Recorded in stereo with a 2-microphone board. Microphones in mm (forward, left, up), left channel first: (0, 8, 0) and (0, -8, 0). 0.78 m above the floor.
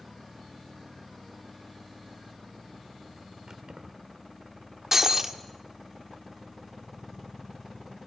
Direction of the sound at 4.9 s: 30° right (ahead or behind).